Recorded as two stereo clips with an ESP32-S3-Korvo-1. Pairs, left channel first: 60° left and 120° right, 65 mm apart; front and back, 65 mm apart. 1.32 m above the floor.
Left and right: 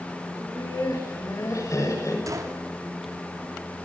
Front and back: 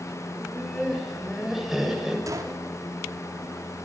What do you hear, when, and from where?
0.3 s laughter: 85° left, 8 m; by 2.2 s 100° left, 7.5 m
2.3 s a gunshot: 150° right, 3.5 m